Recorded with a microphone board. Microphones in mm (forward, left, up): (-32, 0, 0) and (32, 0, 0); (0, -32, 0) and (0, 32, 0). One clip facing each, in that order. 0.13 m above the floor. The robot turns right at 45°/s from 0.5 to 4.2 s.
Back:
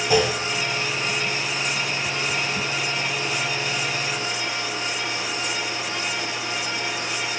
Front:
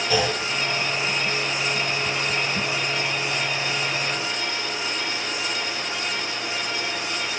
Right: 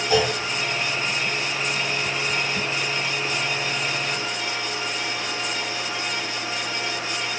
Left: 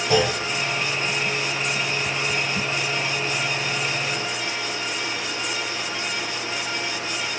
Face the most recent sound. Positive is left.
turn(degrees=-85)